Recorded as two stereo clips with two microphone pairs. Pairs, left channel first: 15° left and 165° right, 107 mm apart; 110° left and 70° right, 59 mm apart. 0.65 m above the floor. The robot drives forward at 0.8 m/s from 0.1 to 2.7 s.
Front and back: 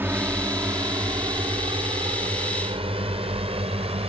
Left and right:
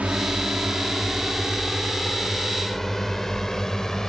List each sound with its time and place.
0.0 s a drone: 115° right; by 4.1 s 165° right